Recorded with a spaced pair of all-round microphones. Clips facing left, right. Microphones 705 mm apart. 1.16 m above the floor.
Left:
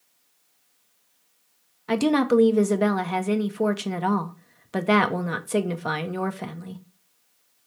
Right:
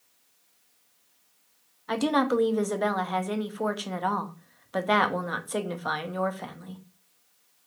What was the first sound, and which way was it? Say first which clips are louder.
A woman speaking: left 5 dB; 55° left (ahead or behind).